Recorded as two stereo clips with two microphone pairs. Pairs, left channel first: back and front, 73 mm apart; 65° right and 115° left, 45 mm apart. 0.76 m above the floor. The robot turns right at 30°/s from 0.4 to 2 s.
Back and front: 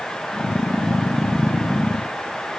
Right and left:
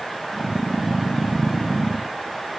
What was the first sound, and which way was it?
Only background noise.